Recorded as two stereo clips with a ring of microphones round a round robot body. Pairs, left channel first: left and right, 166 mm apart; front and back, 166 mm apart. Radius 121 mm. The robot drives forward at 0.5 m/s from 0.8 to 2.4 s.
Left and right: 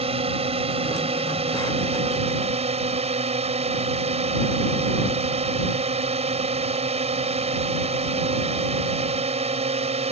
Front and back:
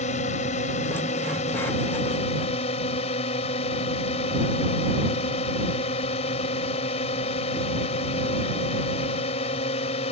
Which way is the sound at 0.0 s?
45° right.